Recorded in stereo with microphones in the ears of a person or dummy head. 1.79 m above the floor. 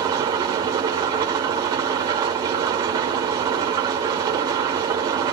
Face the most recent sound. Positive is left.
turn(degrees=-20)  # may be behind; listen again after turning